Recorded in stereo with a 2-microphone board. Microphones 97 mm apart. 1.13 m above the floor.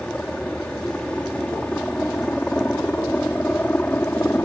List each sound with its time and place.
0.0 s a helicopter: 10° left (ahead or behind); by 4.5 s 20° left (ahead or behind)